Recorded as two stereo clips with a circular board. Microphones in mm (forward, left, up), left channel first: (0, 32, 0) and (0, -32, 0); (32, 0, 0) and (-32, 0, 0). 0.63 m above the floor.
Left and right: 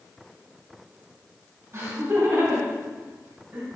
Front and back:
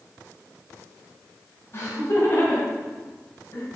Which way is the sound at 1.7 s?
40° right.